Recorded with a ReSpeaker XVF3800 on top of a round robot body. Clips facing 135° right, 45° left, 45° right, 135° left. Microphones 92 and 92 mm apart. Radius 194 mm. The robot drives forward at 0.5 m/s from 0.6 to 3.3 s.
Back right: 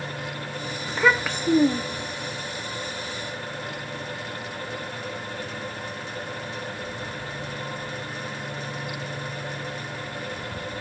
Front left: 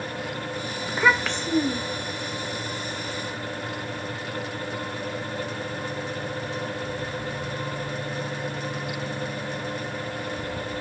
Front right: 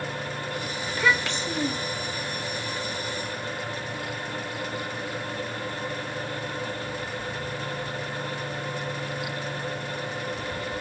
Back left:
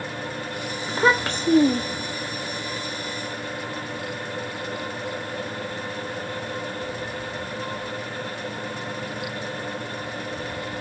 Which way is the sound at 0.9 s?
115° left.